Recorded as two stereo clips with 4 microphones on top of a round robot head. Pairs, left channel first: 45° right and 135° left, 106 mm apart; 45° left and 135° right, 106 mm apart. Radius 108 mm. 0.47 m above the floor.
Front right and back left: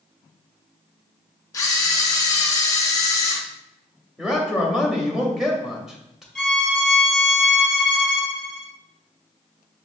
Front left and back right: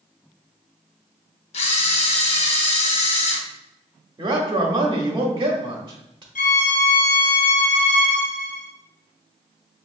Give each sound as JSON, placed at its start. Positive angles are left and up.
{"t": 1.5, "sound": "a camera shutter", "azimuth_deg": 15, "distance_m": 0.6}
{"t": 4.2, "sound": "a man speaking", "azimuth_deg": -140, "distance_m": 0.9}
{"t": 6.3, "sound": "a violin", "azimuth_deg": 40, "distance_m": 0.6}